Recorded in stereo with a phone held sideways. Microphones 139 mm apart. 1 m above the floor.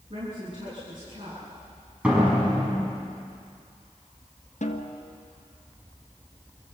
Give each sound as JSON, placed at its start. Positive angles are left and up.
{"t": 0.1, "sound": "a woman speaking", "side_deg": -40, "distance_m": 8.5}
{"t": 2.0, "sound": "a door slam", "side_deg": -10, "distance_m": 6.0}
{"t": 4.6, "sound": "a snare drum", "side_deg": 60, "distance_m": 1.5}